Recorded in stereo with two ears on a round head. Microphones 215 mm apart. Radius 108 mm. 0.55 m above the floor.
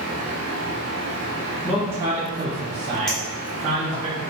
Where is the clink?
5° left (ahead or behind), 1.0 m.